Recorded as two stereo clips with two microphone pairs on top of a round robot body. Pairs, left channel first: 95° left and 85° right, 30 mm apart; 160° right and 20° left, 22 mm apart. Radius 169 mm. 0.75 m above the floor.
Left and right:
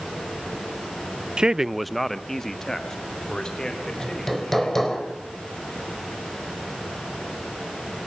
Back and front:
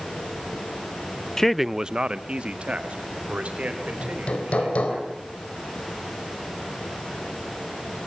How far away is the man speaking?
About 0.7 m.